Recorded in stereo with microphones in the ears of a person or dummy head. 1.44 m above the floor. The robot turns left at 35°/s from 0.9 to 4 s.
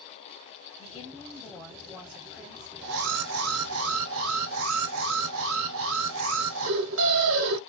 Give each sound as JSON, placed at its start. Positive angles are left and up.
{"t": 0.8, "sound": "a woman speaking", "azimuth_deg": 30, "distance_m": 0.7}
{"t": 2.8, "sound": "an alarm", "azimuth_deg": -60, "distance_m": 0.7}